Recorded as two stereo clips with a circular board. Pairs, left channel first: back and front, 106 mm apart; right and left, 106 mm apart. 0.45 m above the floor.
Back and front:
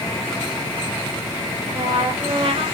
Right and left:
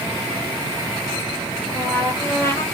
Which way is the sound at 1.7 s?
25° right.